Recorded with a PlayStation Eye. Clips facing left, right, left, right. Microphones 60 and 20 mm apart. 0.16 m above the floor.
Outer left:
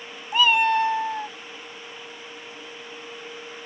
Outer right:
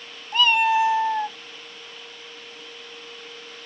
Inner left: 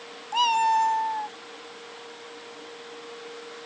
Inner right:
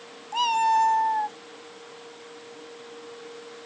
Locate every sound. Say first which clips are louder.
0.3 s a cat meowing: even, even; 10° left (ahead or behind); by 1.4 s 25° right (ahead or behind)